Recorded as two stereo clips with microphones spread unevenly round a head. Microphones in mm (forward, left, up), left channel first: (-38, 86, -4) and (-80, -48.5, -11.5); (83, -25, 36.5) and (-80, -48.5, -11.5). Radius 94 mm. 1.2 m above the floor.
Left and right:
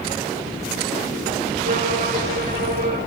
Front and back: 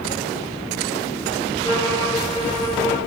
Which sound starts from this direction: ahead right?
A violin, at 1.6 s.